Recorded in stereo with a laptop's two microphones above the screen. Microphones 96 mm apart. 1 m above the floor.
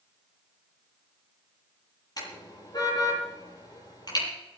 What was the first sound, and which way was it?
A car horn, 45° left (ahead or behind).